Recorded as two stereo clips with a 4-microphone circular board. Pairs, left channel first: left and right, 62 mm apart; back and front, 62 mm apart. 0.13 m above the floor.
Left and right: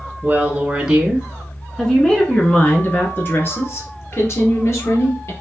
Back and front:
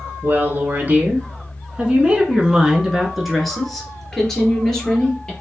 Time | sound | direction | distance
0.2 | a woman speaking | 35° right | 1.6 m